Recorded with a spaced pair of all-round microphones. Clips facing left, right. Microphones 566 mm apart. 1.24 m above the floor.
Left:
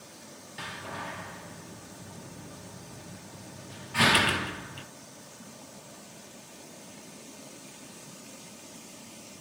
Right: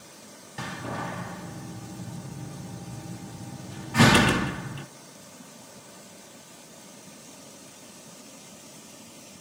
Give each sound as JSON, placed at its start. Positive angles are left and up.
{"t": 0.6, "sound": "a door slam", "side_deg": -65, "distance_m": 0.7}